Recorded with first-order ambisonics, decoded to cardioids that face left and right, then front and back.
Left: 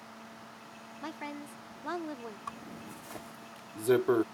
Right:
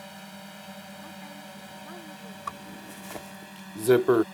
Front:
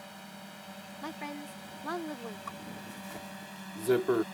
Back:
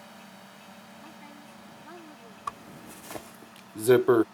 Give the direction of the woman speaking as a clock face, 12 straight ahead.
11 o'clock.